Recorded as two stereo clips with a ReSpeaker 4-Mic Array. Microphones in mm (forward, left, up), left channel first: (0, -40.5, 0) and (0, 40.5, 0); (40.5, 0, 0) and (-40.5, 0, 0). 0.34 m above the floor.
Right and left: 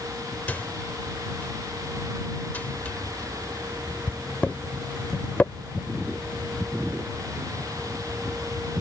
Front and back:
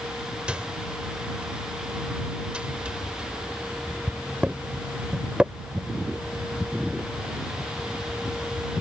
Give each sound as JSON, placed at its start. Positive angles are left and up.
{"t": 0.5, "sound": "a microwave", "azimuth_deg": -125}